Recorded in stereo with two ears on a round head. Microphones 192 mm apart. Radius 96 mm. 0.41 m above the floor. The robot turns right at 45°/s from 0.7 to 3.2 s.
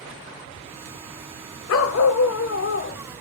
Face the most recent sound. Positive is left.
turn(degrees=140)